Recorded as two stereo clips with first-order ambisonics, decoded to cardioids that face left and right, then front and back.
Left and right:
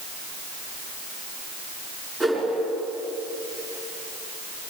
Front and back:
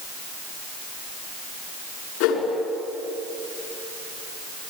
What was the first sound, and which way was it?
A whoosh, 15° right.